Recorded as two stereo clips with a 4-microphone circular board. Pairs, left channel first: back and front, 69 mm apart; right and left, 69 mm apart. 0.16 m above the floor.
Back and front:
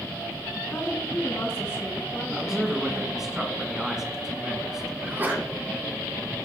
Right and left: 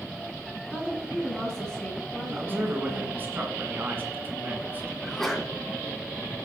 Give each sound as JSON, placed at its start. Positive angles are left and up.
{"t": 0.7, "sound": "a woman speaking", "azimuth_deg": -160, "distance_m": 1.6}
{"t": 2.3, "sound": "a man speaking", "azimuth_deg": 75, "distance_m": 1.6}
{"t": 5.0, "sound": "a sneeze", "azimuth_deg": -10, "distance_m": 1.3}